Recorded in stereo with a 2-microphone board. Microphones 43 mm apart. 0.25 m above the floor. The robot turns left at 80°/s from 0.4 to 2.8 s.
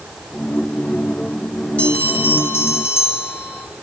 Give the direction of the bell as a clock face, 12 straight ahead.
7 o'clock.